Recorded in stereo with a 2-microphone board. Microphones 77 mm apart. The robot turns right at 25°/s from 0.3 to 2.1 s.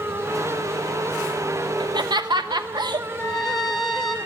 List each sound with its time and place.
1.8 s laughter: 70° right (ahead or behind), 0.9 m; by 3.1 s 65° right (ahead or behind), 0.9 m
3.2 s a trumpet: 5° left (ahead or behind), 1.9 m